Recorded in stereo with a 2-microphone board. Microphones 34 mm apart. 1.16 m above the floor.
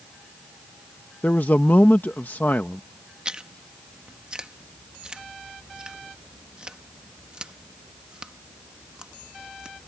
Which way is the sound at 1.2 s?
70° left (ahead or behind).